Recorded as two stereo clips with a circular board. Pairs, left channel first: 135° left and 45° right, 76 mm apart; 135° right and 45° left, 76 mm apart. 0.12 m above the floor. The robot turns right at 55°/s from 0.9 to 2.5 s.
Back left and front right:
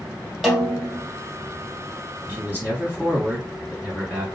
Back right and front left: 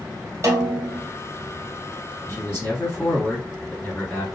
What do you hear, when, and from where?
0.4 s a snare drum: 45° left, 1.0 m; by 1.1 s 55° left, 1.0 m
2.3 s a man speaking: 105° right, 1.9 m; by 4.3 s 95° right, 1.9 m